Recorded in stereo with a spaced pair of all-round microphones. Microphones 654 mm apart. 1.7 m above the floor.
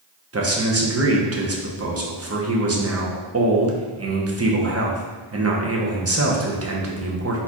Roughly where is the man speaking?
Right.